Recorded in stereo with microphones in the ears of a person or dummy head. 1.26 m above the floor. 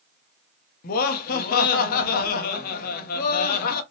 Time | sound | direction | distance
0.8 | laughter | 55° left (ahead or behind) | 0.7 m